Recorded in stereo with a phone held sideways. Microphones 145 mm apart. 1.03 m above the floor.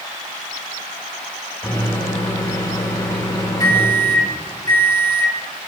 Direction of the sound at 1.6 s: 30° left (ahead or behind).